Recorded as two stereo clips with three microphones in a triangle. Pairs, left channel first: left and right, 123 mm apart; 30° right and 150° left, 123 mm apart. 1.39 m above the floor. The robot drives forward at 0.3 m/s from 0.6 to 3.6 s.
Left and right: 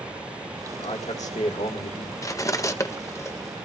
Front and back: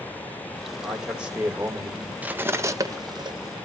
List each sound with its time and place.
0.8 s a man speaking: 65° left, 1.7 m; by 2.1 s 80° left, 1.6 m
2.2 s cutlery clinking: 90° left, 0.6 m; by 3.3 s 140° left, 0.7 m